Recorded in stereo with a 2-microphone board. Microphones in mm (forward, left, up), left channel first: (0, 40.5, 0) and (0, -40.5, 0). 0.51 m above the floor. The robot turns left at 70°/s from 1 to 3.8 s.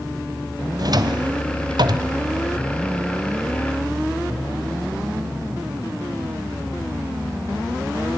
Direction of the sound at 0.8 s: 55° right (ahead or behind).